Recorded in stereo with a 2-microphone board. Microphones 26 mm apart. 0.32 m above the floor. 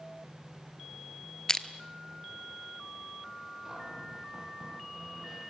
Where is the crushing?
25° left (ahead or behind), 1.2 m.